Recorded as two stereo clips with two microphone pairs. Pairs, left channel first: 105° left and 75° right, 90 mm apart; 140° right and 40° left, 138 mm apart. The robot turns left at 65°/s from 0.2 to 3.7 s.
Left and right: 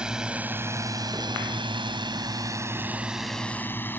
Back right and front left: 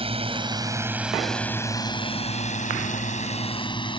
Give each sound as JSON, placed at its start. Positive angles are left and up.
{"t": 0.0, "sound": "a drone", "azimuth_deg": 5}